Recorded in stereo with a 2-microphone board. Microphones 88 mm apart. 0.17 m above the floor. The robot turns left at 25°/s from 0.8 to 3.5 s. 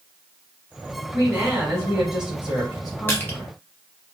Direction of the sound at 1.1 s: 20° right (ahead or behind).